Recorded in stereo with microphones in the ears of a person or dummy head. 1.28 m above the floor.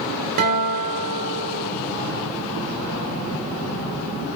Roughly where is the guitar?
Right.